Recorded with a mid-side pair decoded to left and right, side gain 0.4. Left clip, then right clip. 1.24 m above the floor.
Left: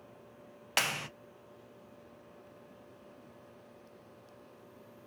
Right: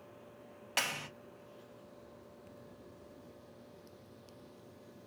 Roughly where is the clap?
Ahead left.